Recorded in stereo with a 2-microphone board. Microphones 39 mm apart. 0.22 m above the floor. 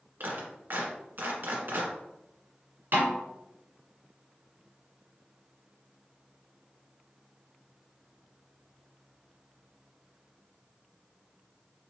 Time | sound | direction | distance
0.2 | a clap | 60° right (ahead or behind) | 1.7 m
2.9 | a snare drum | 60° right (ahead or behind) | 2.5 m